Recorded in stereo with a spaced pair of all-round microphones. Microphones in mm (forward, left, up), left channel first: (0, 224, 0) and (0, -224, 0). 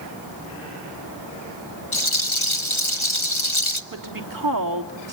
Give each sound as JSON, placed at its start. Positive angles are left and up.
{"t": 1.9, "sound": "a rattle", "side_deg": 75, "distance_m": 1.4}
{"t": 3.9, "sound": "a woman speaking", "side_deg": -45, "distance_m": 3.0}